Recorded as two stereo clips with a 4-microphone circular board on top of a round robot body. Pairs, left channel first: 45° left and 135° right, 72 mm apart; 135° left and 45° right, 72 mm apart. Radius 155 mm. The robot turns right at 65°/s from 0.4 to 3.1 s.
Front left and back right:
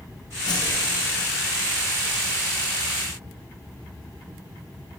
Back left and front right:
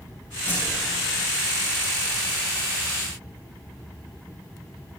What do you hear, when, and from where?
0.5 s a whoosh: 70° left, 6 m; by 0.7 s 80° left, 6 m